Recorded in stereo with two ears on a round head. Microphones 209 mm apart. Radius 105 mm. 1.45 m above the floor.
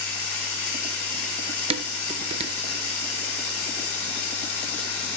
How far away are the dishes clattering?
About 0.6 m.